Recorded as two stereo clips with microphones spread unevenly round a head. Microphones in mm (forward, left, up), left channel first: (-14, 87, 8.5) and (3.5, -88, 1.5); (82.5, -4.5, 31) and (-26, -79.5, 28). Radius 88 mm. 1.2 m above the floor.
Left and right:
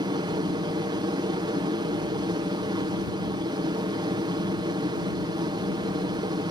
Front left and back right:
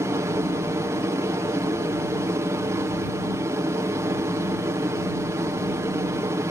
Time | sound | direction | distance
0.0 | an aircraft | 110° right | ?